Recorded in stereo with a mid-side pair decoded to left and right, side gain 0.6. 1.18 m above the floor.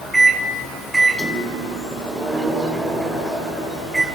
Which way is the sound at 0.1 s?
15° right.